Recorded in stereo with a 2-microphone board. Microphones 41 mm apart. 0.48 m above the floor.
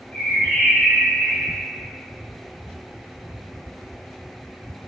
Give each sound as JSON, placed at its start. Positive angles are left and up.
{"t": 0.1, "sound": "a bird", "side_deg": 25, "distance_m": 1.2}